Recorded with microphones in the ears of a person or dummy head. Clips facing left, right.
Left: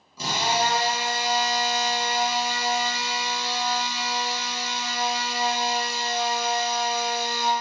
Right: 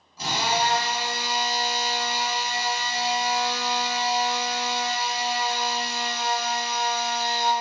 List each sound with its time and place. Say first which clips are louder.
0.2 s a drill: left 1 dB; 75° left (ahead or behind), 1.2 m